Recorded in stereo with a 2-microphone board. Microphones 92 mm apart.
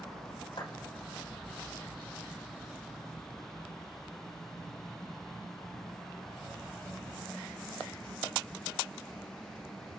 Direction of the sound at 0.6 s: 55° left (ahead or behind).